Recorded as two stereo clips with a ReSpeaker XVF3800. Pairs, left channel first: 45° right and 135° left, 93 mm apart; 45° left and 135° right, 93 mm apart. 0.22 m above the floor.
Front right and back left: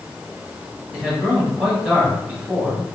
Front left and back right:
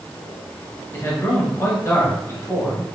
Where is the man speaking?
60° left, 1.8 m.